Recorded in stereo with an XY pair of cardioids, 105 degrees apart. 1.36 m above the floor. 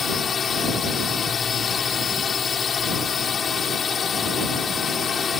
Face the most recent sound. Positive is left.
turn(degrees=40)